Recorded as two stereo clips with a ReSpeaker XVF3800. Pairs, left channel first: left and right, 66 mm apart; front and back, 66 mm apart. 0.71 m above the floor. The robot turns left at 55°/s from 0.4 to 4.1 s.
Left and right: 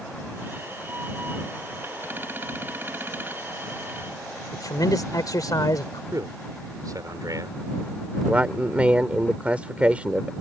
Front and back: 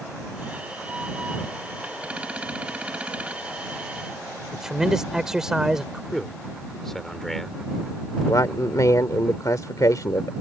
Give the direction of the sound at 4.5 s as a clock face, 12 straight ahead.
9 o'clock.